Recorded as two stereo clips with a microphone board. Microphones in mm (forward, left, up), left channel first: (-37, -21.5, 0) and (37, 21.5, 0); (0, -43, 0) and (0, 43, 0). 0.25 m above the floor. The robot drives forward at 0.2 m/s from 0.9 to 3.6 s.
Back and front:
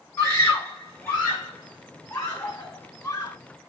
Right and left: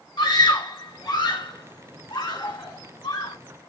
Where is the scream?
90° right, 2.5 m; by 3.4 s 105° right, 2.5 m.